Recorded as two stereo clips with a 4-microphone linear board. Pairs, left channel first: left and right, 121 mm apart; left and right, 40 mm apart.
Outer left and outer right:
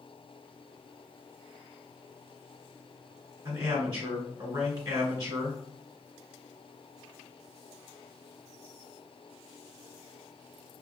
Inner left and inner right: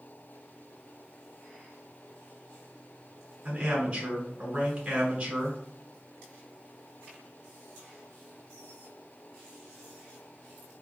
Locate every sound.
3.5 s a man speaking: 35° right (ahead or behind), 1.2 m